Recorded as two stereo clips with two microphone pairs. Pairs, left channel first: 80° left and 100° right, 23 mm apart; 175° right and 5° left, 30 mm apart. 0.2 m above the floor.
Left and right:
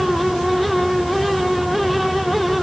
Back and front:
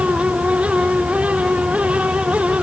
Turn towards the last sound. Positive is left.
No sound to turn to.